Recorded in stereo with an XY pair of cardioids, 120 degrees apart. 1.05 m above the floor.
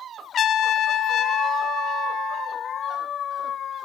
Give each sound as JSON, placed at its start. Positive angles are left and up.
{"t": 0.3, "sound": "a trumpet", "azimuth_deg": 50, "distance_m": 0.8}